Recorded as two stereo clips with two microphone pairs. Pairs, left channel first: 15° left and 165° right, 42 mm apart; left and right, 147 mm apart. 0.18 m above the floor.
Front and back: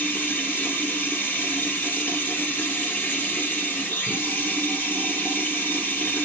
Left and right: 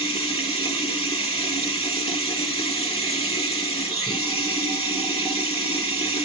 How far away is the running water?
About 1.9 m.